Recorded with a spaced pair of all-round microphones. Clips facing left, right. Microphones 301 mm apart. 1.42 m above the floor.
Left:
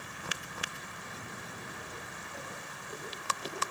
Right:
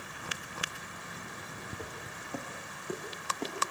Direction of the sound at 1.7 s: 75° right (ahead or behind).